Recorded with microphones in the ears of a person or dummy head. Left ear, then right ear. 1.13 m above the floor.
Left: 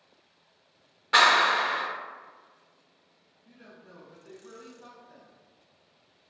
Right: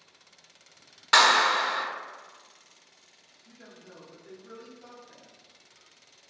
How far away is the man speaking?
About 0.6 m.